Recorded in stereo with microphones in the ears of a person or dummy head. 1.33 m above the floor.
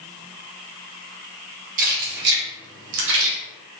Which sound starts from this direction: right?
Keys jangling, at 1.8 s.